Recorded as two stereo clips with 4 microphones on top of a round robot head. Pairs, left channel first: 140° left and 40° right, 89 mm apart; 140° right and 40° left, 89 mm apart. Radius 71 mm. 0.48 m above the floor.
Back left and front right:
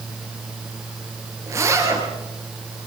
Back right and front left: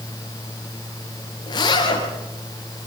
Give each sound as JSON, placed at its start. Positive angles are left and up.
{"t": 1.5, "sound": "a zipper", "azimuth_deg": -100, "distance_m": 6.0}